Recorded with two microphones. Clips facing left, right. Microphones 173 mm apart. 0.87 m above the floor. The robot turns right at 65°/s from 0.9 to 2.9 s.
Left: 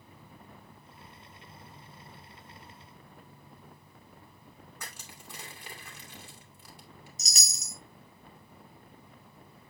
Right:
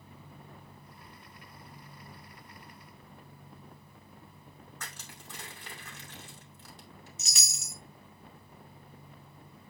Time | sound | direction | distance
4.8 | crushing | 10° left (ahead or behind) | 2.5 m
7.2 | a chime | 40° left (ahead or behind) | 0.9 m